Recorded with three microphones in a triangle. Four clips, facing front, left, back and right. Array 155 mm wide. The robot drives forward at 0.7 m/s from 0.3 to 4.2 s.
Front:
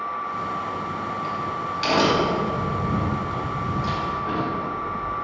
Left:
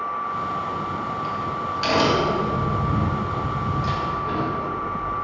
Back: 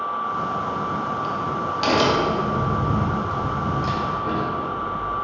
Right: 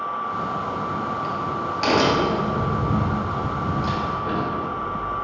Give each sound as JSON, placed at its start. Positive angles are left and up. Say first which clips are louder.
{"t": 0.3, "sound": "a crack", "louder": "even, back 3 dB", "azimuth_deg": -115, "distance_m": 1.8}